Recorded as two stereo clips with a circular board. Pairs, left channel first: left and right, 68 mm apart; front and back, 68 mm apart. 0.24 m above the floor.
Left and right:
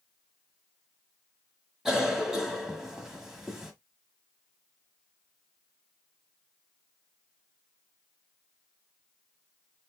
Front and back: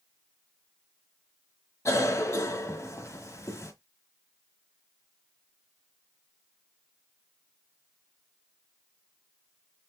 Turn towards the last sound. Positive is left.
turn(degrees=-10)